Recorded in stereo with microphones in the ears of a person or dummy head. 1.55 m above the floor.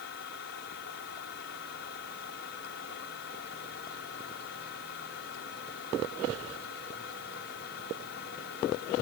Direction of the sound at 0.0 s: 70° left (ahead or behind).